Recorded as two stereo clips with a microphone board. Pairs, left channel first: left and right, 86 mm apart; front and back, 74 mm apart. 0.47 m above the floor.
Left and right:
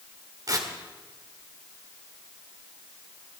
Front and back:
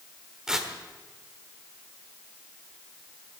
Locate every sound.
0.5 s tearing paper: 105° right, 1.7 m